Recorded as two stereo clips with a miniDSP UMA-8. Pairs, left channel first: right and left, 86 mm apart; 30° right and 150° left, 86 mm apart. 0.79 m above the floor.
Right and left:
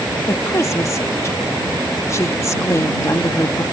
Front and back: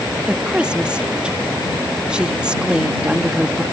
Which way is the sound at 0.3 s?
135° right.